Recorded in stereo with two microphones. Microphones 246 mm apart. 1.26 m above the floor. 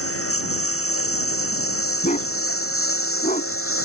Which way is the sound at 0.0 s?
65° left (ahead or behind).